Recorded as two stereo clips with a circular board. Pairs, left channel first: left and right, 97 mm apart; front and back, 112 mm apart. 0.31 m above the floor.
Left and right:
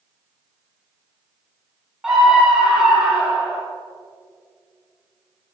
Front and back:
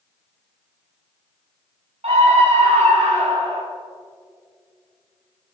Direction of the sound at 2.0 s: 175° right.